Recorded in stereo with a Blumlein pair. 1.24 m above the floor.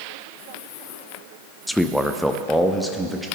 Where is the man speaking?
5° left, 0.6 m; by 3.3 s straight ahead, 1.4 m.